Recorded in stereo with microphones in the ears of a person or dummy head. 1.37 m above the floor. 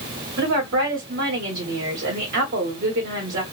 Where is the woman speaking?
55° right (ahead or behind), 1.3 m.